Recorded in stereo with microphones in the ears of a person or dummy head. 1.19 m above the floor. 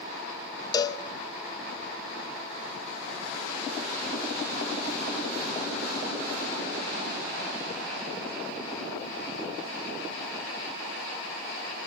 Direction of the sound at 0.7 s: 25° left (ahead or behind).